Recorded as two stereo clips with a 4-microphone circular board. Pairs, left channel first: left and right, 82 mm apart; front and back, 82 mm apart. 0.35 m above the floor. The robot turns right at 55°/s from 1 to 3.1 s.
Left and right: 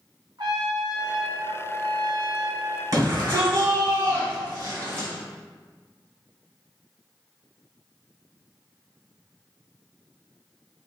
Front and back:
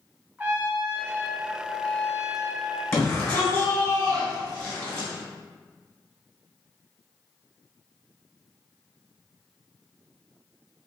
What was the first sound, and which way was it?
A trumpet, 110° right.